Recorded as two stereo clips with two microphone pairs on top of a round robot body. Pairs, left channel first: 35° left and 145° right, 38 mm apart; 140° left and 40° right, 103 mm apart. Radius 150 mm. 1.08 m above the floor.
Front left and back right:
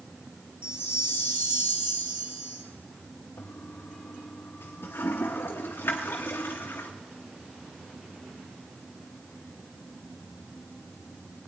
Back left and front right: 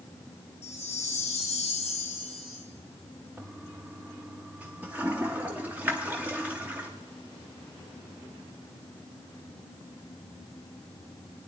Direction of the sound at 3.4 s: 40° left.